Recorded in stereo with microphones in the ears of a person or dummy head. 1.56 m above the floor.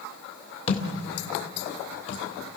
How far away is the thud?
About 2 m.